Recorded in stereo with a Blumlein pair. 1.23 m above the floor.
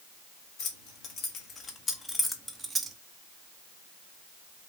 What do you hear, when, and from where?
0.6 s keys jangling: 40° left, 1.8 m; by 3.0 s 20° right, 0.8 m